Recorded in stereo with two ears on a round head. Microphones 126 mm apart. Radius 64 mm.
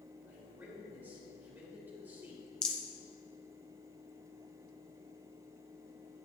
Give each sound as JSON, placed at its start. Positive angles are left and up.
{"t": 0.3, "sound": "a man speaking", "side_deg": -15, "distance_m": 3.5}
{"t": 2.6, "sound": "a rattle", "side_deg": 5, "distance_m": 0.8}